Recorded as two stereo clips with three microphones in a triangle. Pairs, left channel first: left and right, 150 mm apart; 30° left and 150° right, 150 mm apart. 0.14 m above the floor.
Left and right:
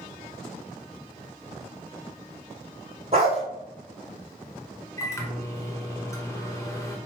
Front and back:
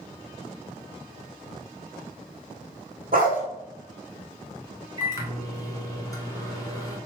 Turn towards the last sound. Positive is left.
turn(degrees=55)